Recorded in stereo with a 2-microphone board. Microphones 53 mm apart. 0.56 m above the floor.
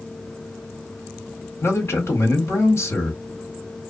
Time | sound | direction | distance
1.6 | a man speaking | 55° left (ahead or behind) | 1.8 m